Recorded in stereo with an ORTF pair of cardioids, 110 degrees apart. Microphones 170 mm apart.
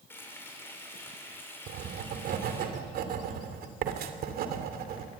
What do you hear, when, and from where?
0.1 s frying: 15° left, 6 m
1.7 s writing: 70° right, 2.5 m